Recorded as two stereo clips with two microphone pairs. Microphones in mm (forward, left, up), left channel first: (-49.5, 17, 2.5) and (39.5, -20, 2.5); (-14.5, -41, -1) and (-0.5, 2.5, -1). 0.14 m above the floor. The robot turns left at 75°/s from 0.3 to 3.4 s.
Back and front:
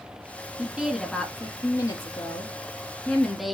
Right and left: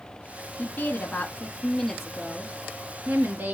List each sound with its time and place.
0.6 s a woman speaking: 85° right, 1.2 m; by 3.5 s 65° left, 1.2 m